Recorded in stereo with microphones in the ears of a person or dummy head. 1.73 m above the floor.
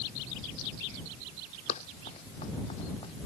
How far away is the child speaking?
I don't hear a child speaking.